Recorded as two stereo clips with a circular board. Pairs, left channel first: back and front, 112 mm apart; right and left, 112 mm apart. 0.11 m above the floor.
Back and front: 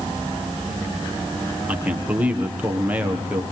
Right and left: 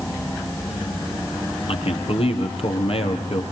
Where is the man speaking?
75° right, 3.5 m.